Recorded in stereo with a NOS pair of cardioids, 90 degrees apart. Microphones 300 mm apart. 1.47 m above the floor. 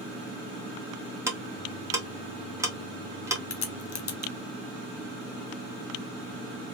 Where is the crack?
50° left, 1.1 m.